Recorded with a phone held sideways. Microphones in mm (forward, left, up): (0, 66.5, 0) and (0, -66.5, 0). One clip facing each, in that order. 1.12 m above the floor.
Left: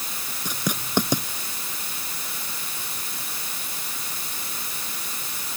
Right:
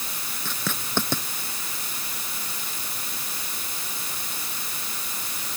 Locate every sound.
0.5 s writing: 15° left (ahead or behind)